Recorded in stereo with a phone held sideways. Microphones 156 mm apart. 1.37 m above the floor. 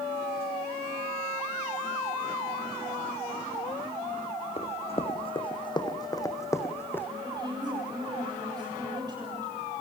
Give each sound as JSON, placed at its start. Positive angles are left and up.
{"t": 4.6, "sound": "running footsteps", "side_deg": 45, "distance_m": 3.0}
{"t": 7.2, "sound": "a woman speaking", "side_deg": -25, "distance_m": 7.5}